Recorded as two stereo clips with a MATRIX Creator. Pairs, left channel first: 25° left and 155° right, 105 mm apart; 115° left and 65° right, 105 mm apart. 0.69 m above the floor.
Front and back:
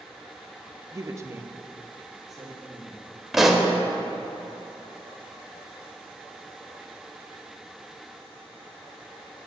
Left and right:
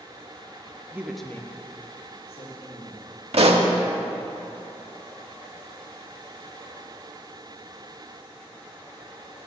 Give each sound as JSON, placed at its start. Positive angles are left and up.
{"t": 0.9, "sound": "a woman speaking", "azimuth_deg": -120, "distance_m": 0.6}
{"t": 3.3, "sound": "a pop", "azimuth_deg": -70, "distance_m": 0.7}